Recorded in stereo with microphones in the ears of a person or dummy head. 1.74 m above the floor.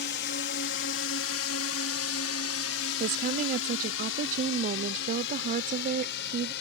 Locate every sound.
0.0 s a drone: 55° left (ahead or behind); by 6.6 s 65° left (ahead or behind)
3.0 s a woman speaking: 45° right (ahead or behind)